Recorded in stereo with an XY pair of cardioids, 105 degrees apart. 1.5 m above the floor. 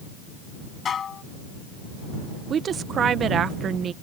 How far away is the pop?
No pop in this recording.